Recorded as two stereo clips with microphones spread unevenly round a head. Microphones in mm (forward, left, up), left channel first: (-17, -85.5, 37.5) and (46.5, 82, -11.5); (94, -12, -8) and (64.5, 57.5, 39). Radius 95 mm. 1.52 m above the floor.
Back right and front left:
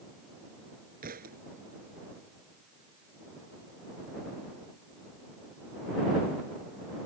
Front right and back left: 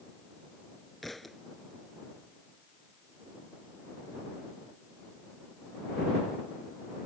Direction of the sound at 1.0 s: 25° left.